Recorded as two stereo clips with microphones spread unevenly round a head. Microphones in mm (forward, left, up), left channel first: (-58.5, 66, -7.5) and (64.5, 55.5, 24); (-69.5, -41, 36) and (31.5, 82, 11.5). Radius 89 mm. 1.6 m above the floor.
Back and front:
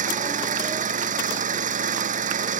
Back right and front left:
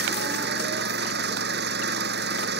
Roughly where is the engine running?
Ahead.